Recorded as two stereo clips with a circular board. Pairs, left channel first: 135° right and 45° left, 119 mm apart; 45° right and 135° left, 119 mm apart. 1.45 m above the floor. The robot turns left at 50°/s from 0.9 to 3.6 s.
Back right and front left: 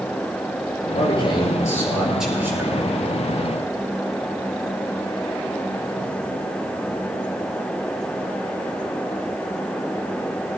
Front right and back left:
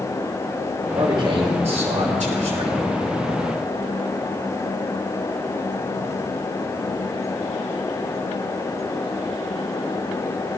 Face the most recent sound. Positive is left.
turn(degrees=60)